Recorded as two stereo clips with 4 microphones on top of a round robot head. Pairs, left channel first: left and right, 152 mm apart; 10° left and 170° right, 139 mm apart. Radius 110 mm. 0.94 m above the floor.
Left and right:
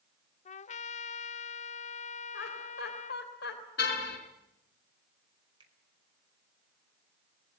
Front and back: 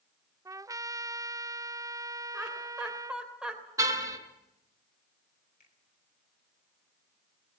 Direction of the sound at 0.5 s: 125° left.